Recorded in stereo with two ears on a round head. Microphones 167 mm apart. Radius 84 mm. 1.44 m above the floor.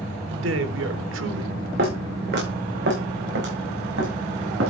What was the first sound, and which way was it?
A man speaking, 70° right (ahead or behind).